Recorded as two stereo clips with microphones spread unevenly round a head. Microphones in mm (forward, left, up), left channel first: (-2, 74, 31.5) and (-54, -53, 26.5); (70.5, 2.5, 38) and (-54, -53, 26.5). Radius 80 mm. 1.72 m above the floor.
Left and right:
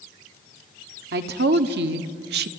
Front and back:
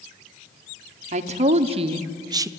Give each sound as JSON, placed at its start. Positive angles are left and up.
{"t": 1.1, "sound": "a woman speaking", "azimuth_deg": -115, "distance_m": 1.4}